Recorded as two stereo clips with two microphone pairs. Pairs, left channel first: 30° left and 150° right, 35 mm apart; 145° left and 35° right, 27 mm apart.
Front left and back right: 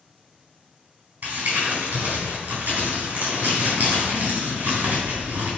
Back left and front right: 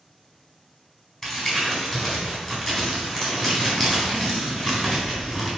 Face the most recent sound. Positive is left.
turn(degrees=-145)